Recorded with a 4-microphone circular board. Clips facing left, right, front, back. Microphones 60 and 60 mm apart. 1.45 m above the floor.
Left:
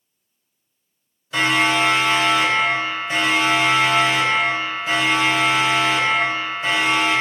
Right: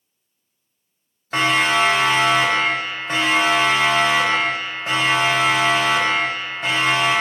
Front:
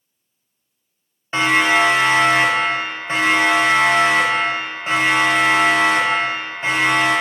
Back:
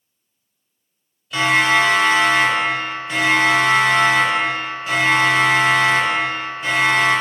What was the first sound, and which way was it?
A siren, 55° right.